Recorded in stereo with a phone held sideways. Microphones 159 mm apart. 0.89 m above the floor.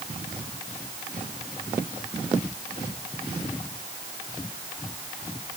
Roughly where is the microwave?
I don't hear a microwave.